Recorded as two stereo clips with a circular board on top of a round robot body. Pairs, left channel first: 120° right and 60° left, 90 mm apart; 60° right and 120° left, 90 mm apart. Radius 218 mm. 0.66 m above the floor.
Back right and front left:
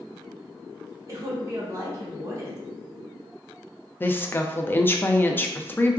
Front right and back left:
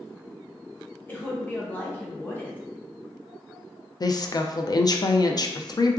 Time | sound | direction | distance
1.1 | a woman speaking | 10° left | 1.1 m
4.0 | a woman speaking | 65° right | 0.6 m